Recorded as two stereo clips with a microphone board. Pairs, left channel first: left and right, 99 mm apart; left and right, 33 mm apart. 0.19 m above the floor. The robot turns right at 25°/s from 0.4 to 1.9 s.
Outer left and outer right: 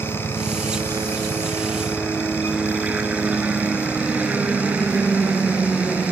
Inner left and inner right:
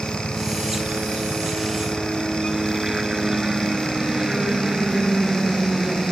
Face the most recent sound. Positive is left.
turn(degrees=-15)  # may be behind; listen again after turning